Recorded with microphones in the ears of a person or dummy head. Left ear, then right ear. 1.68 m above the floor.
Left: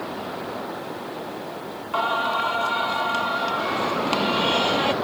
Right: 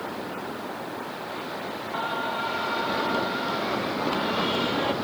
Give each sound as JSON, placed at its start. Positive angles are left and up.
{"t": 1.9, "sound": "singing", "side_deg": 30}